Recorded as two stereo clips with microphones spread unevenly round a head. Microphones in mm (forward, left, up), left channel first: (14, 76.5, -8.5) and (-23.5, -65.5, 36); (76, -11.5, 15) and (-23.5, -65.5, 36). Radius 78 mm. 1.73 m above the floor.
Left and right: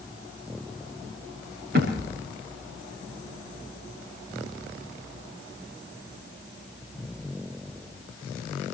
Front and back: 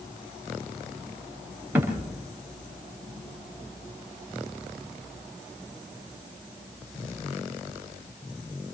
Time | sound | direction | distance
1.8 | a thud | 80° right | 6.5 m